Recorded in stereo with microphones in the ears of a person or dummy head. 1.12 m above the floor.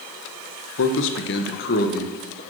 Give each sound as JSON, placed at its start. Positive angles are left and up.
{"t": 0.8, "sound": "a man speaking", "side_deg": 60, "distance_m": 0.7}